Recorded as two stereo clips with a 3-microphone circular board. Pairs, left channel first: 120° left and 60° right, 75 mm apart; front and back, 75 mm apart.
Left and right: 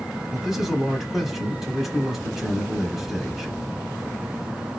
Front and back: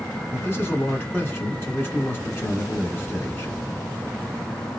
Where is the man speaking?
25° left, 1.1 m.